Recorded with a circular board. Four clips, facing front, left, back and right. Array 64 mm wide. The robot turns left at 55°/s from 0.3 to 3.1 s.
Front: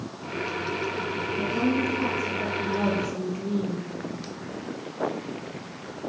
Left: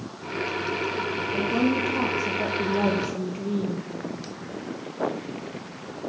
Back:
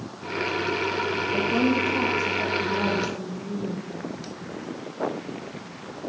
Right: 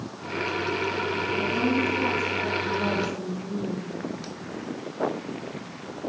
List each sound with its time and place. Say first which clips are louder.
1.3 s a woman speaking: left 2 dB, back 2 dB; 160° left, 8.5 m; by 3.9 s 65° left, 8.5 m